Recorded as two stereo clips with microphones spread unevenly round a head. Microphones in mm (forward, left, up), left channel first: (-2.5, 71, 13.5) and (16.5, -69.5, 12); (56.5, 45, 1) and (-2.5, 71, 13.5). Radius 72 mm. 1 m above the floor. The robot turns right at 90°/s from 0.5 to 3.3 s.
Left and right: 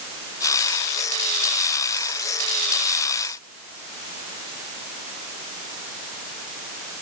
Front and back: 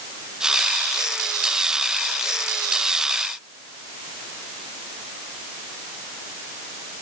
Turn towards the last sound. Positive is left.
No sound to turn to.